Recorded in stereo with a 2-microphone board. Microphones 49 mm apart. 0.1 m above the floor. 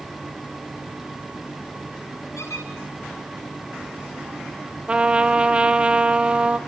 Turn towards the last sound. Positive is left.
turn(degrees=-20)  # may be behind; listen again after turning